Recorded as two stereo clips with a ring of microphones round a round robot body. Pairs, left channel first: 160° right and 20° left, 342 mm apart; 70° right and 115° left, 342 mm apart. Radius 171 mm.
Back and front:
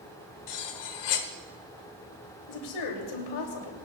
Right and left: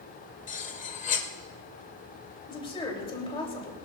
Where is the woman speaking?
140° right, 3 m.